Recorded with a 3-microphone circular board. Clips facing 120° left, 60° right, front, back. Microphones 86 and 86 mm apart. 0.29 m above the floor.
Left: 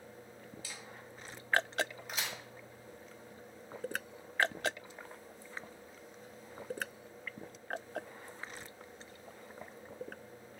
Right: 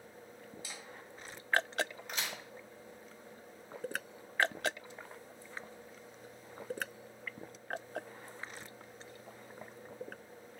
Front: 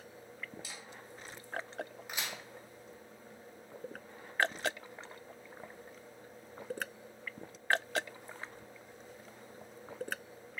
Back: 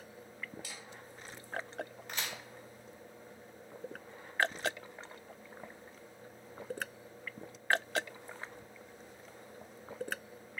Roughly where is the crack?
Ahead left.